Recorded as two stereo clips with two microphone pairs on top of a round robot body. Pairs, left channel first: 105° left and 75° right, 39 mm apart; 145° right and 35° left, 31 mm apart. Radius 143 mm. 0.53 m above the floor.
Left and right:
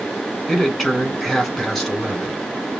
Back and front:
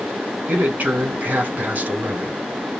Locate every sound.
0.5 s a man speaking: 25° left, 3.5 m